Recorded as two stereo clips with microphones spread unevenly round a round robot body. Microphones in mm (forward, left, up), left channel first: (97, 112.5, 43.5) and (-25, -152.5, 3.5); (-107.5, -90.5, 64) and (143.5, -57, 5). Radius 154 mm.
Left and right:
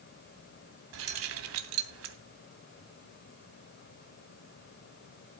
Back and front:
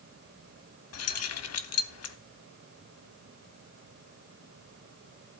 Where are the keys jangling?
150° right, 0.9 m.